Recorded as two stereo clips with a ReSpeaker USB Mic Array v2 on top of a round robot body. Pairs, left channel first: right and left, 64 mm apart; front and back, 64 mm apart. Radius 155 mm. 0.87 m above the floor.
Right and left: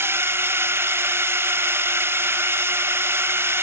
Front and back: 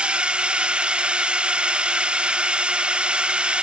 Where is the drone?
115° left.